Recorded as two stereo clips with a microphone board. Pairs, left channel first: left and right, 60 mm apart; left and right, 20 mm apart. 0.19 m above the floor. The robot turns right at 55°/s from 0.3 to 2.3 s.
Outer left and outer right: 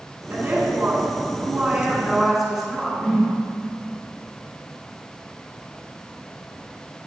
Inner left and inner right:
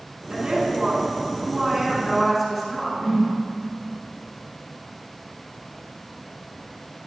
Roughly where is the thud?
I don't hear a thud.